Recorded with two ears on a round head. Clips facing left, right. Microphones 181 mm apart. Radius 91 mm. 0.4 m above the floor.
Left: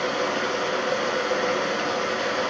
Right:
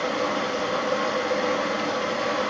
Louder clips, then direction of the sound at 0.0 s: Even; centre (ahead or behind).